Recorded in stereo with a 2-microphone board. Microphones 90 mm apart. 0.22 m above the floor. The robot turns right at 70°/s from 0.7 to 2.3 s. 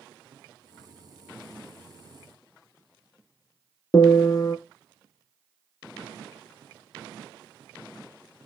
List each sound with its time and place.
3.9 s a piano: 45° left (ahead or behind), 0.5 m